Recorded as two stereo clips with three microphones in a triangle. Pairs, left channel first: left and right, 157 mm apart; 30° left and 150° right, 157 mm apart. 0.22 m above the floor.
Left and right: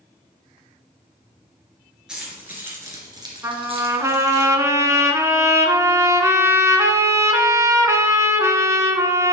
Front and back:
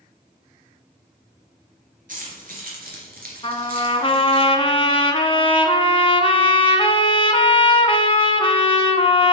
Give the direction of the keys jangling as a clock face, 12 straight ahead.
6 o'clock.